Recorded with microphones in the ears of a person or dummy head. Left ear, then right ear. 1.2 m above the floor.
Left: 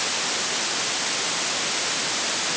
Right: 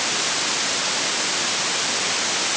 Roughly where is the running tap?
No running tap in this recording.